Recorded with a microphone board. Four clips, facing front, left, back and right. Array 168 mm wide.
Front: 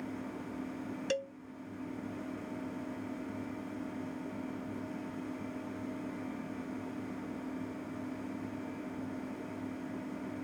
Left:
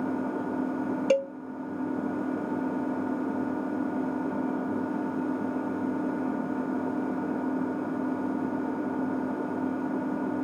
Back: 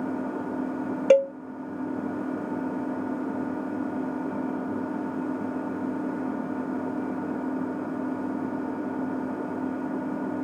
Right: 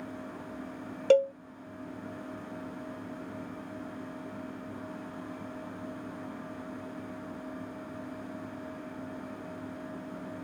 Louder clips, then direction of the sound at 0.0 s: Left 12 dB, back 11 dB; 130° left.